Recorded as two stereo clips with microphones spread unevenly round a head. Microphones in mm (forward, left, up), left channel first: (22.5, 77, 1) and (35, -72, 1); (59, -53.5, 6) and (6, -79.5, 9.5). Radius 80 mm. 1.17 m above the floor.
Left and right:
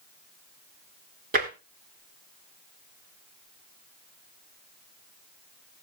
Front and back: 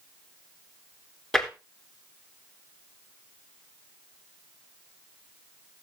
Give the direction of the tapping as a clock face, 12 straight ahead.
2 o'clock.